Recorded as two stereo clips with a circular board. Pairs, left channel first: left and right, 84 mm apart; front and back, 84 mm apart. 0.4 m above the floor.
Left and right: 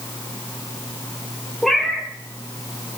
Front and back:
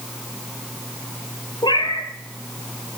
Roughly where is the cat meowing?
Ahead.